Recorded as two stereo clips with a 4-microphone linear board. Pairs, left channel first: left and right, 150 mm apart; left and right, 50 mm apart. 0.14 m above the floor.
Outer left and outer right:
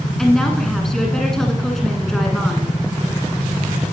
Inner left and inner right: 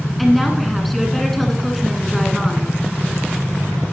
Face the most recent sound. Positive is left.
turn(degrees=5)  # may be behind; listen again after turning